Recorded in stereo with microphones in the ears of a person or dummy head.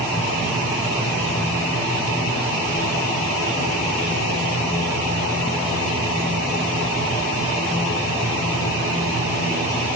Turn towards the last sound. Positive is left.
No sound to turn to.